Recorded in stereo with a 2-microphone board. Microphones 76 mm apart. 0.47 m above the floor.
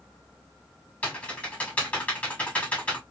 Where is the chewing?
I don't hear chewing.